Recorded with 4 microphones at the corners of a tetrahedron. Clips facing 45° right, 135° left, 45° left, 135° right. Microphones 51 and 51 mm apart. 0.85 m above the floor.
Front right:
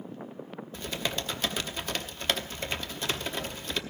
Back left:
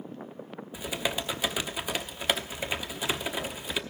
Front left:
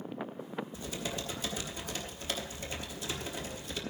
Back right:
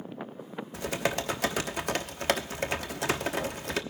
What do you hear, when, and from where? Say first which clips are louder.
0.7 s typing on a keyboard: back left 2 dB, back right 8 dB; 140° right, 1.0 m